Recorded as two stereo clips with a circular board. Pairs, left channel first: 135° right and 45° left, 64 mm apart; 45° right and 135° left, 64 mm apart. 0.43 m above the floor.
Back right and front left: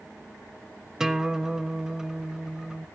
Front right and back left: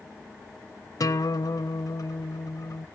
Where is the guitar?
35° right, 0.7 m.